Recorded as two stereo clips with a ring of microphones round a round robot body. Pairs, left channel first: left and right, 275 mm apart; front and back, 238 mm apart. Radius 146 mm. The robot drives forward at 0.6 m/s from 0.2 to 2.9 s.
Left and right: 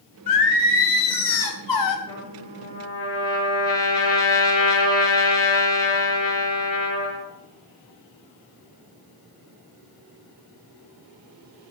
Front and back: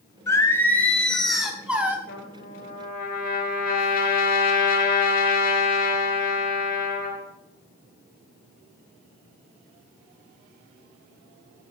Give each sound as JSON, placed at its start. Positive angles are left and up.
{"t": 0.3, "sound": "singing", "azimuth_deg": 80, "distance_m": 3.0}
{"t": 2.1, "sound": "a trumpet", "azimuth_deg": 50, "distance_m": 5.0}